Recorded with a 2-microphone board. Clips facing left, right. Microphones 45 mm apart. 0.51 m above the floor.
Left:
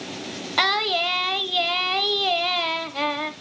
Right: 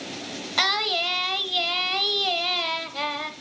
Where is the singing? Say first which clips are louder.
Left 3 dB; 15° left (ahead or behind), 0.5 m.